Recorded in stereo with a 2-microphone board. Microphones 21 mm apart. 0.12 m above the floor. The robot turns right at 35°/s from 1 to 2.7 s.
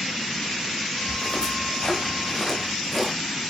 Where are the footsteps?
60° left (ahead or behind), 6.5 m; by 3.1 s 10° left (ahead or behind), 9 m.